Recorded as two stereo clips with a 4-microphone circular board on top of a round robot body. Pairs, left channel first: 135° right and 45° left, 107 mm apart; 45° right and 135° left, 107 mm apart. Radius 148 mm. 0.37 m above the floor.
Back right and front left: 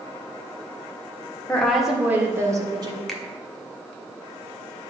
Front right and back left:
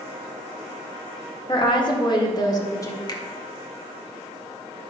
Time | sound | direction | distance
1.5 | a woman speaking | 55° right | 1.8 m
3.1 | a finger snap | 50° right | 1.4 m